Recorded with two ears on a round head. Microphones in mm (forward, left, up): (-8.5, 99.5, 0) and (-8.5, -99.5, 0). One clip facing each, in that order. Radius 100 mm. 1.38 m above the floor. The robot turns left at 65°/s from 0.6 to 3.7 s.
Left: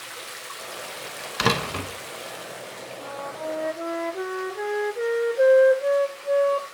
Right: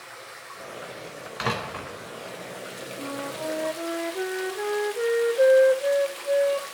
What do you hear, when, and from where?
0.0 s running water: 130° left, 1.0 m; by 6.7 s 70° right, 1.0 m
1.4 s a door slam: 75° left, 0.9 m; by 1.9 s 40° left, 0.9 m
3.0 s a flute: 130° right, 0.6 m; by 6.6 s straight behind, 0.6 m